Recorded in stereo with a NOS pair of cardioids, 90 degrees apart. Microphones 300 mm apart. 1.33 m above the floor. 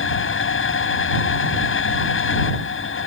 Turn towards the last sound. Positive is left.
turn(degrees=45)